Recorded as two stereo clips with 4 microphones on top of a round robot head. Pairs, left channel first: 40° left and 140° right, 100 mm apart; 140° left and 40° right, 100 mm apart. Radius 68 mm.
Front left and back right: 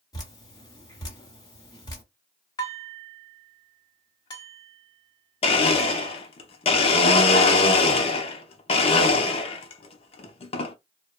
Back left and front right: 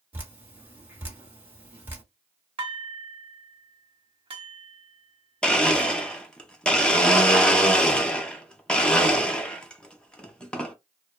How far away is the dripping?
About 1.5 m.